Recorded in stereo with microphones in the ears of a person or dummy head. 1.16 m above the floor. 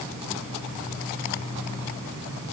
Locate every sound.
Only background noise.